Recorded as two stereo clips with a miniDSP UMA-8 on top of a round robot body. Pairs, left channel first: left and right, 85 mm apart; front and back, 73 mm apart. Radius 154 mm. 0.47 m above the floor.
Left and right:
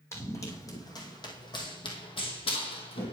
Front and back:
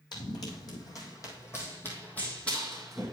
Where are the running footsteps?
30° left, 1.8 m; by 3.1 s 90° left, 1.5 m.